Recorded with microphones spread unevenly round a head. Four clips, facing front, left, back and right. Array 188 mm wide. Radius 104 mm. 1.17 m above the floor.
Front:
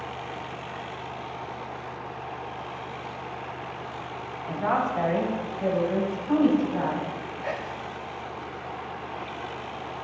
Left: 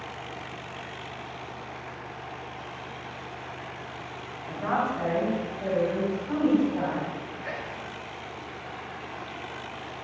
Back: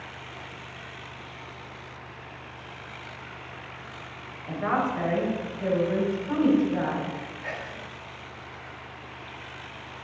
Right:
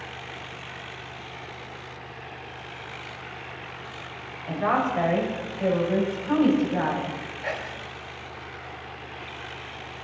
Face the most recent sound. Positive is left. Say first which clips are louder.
# right 3 dB, front 5 dB
turn(degrees=-45)